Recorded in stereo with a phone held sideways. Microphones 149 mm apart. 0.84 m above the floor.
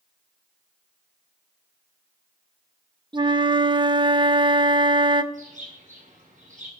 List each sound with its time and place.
3.1 s a flute: 35° right (ahead or behind), 0.5 m
5.3 s a bird: 60° right (ahead or behind), 5 m